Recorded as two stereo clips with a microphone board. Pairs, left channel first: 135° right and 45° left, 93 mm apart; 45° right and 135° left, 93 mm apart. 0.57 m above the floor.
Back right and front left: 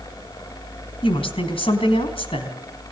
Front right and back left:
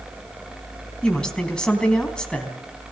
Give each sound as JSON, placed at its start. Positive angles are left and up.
{"t": 1.0, "sound": "a woman speaking", "azimuth_deg": -125, "distance_m": 4.0}